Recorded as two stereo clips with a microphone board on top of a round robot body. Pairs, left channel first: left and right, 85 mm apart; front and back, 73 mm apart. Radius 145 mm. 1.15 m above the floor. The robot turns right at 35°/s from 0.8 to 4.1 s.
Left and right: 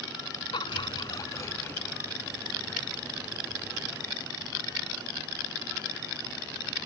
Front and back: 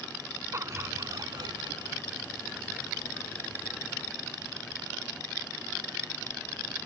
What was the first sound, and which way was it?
Laughter, 125° left.